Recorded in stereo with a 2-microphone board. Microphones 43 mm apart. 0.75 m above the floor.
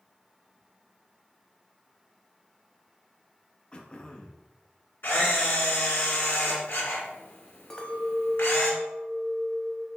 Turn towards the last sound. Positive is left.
turn(degrees=20)  # may be behind; listen again after turning